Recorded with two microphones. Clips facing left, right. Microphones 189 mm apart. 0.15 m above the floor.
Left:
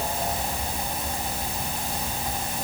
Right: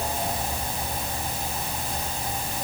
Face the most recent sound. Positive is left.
No sound to turn to.